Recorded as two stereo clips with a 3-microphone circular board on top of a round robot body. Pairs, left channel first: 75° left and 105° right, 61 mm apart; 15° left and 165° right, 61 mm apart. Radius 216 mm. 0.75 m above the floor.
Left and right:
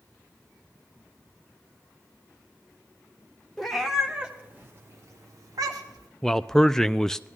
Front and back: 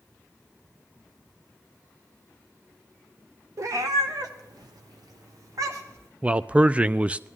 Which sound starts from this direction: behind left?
A man speaking, at 6.2 s.